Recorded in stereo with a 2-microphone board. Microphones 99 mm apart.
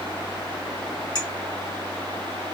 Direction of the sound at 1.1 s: 40° left (ahead or behind).